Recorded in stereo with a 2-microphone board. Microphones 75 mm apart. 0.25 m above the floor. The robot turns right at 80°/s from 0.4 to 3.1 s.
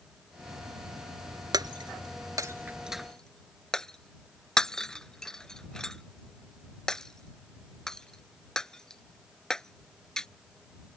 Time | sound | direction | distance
1.5 | breaking glass | 60° right (ahead or behind) | ?